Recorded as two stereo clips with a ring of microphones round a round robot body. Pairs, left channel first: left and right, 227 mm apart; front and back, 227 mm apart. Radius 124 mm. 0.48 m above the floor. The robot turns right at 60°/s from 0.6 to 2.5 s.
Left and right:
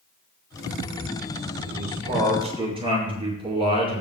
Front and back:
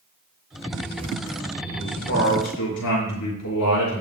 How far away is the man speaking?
About 6.5 m.